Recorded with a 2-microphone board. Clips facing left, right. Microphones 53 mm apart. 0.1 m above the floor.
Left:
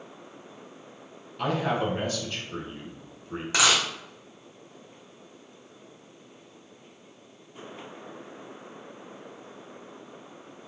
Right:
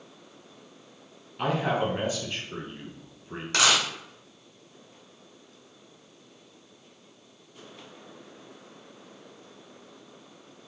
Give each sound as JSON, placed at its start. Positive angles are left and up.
{"t": 1.4, "sound": "a man speaking", "side_deg": -15, "distance_m": 1.5}
{"t": 3.5, "sound": "a dropped coin", "side_deg": 10, "distance_m": 1.2}